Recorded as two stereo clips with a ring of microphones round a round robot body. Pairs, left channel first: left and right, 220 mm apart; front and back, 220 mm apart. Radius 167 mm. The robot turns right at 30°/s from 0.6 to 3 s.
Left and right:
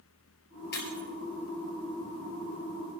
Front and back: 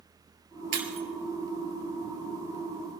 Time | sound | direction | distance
0.7 | breaking glass | 150° left | 2.5 m